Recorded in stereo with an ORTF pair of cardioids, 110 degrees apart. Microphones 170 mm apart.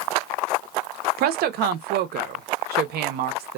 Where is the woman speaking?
70° right, 0.6 m.